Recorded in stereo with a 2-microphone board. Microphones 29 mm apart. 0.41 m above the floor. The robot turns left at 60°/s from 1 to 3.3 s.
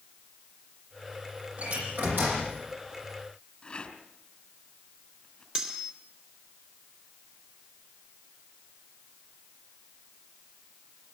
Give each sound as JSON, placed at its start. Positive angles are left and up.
{"t": 1.6, "sound": "a door slam", "azimuth_deg": -60, "distance_m": 10.0}
{"t": 3.6, "sound": "a rattle", "side_deg": 30, "distance_m": 3.5}
{"t": 5.5, "sound": "cutlery clinking", "side_deg": -30, "distance_m": 3.5}